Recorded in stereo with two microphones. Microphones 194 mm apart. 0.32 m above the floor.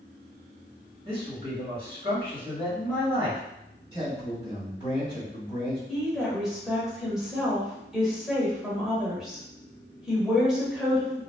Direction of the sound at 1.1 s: 30° right (ahead or behind).